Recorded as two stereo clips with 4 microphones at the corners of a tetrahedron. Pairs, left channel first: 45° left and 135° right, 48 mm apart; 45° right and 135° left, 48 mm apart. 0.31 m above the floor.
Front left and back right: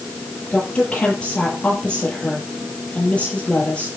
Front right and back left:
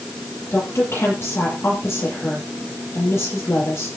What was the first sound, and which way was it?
A woman speaking, 20° right.